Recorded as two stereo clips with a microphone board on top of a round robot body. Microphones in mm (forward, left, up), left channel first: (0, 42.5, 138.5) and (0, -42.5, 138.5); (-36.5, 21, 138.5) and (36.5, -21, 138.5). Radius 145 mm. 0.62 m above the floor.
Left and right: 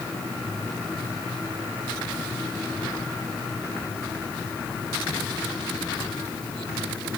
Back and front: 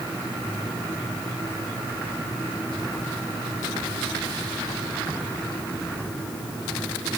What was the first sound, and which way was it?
Only background noise.